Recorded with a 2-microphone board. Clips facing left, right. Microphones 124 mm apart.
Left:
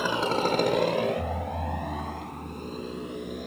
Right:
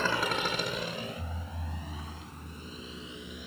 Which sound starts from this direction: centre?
A motorcycle, at 0.0 s.